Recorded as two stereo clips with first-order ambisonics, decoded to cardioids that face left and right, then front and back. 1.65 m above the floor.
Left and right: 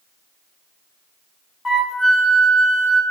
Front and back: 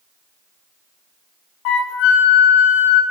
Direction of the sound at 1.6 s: 20° left.